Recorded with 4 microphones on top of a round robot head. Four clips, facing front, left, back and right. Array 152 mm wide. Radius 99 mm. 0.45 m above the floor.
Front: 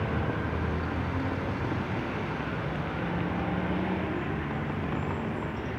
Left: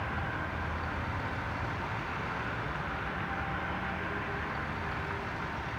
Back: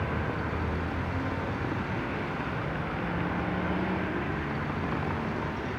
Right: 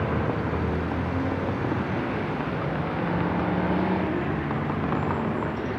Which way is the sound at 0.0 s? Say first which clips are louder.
Right 10 dB, front 1 dB; 80° right.